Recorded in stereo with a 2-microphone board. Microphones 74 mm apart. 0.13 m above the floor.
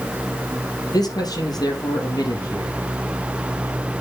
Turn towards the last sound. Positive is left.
turn(degrees=65)  # may be behind; listen again after turning